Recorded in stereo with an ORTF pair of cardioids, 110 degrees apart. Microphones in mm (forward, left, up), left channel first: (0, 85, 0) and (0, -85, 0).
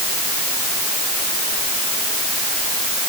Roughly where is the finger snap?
No finger snap in this recording.